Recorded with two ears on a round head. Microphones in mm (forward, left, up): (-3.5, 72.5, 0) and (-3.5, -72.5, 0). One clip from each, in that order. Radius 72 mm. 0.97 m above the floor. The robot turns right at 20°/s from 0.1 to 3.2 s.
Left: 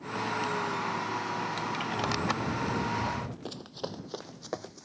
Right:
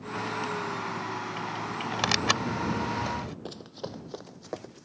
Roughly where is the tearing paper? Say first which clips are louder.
Right 9 dB; right.